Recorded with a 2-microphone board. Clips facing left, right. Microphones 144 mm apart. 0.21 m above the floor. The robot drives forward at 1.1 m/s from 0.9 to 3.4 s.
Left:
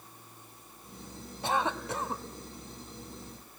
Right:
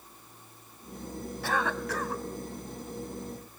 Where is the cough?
20° left (ahead or behind), 1.6 m.